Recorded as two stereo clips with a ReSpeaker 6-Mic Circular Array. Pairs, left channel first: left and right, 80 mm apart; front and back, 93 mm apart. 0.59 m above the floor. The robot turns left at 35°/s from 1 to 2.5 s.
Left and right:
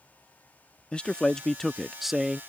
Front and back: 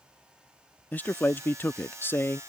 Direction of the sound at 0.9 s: 30° left.